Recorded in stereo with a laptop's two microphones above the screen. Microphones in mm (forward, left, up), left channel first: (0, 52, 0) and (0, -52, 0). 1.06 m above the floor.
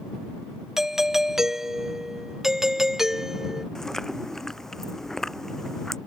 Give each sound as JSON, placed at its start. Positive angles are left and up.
{"t": 0.8, "sound": "a doorbell", "side_deg": -5}
{"t": 3.8, "sound": "chewing", "side_deg": 5}